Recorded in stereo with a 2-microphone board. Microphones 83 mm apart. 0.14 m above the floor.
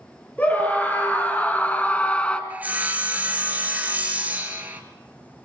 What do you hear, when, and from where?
0.4 s a scream: 20° left (ahead or behind), 2.5 m; by 2.4 s 15° left (ahead or behind), 1.6 m
2.5 s sawing: 20° right (ahead or behind), 2.5 m